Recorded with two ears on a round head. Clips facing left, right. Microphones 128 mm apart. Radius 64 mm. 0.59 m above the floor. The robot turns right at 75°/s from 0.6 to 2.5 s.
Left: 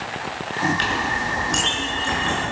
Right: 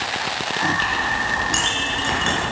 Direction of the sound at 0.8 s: 125° left.